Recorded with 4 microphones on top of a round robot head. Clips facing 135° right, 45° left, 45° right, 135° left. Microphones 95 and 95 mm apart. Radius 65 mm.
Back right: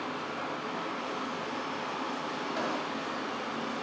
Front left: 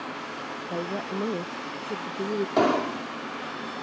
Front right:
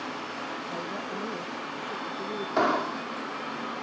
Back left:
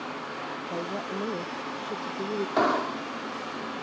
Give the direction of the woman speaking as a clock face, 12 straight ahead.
10 o'clock.